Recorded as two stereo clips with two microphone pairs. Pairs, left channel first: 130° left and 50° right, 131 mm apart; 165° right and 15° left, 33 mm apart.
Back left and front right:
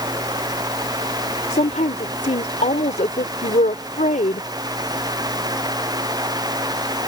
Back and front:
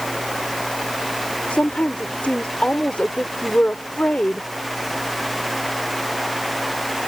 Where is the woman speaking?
150° left.